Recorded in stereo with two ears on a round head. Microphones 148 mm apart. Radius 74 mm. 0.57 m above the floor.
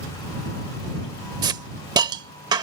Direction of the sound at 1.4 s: 25° right (ahead or behind).